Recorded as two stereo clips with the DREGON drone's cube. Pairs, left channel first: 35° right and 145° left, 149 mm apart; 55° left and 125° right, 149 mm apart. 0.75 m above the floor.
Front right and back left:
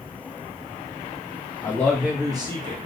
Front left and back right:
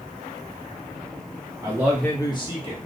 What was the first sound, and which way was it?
A man speaking, 85° right.